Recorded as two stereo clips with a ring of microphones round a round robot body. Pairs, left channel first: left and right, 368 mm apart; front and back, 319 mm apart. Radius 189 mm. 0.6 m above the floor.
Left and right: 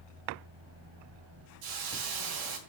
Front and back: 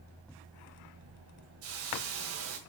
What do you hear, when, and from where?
1.6 s a hiss: 125° right, 1.4 m